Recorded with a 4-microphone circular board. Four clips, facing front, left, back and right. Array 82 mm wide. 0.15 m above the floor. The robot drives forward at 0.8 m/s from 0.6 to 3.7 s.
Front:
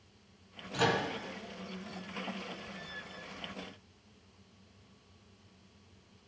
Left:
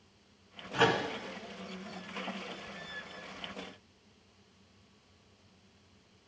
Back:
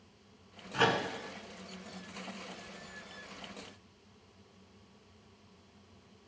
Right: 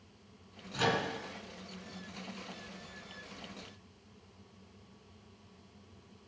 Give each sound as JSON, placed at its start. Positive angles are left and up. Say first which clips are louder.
{"t": 0.7, "sound": "a microwave", "louder": "left 4 dB, back 1 dB", "azimuth_deg": 120, "distance_m": 1.3}